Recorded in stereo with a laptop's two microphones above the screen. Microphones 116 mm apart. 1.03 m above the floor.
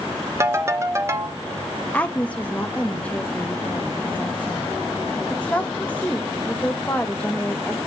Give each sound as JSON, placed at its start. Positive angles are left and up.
{"t": 0.4, "sound": "a ringtone", "side_deg": -25, "distance_m": 0.9}
{"t": 1.9, "sound": "a woman speaking", "side_deg": 10, "distance_m": 0.9}